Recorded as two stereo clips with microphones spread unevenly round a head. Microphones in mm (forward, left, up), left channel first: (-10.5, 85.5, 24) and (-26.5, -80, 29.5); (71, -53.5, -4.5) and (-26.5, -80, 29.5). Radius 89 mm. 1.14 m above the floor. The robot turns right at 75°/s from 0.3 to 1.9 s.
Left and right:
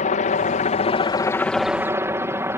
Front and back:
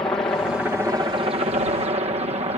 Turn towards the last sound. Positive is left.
turn(degrees=-165)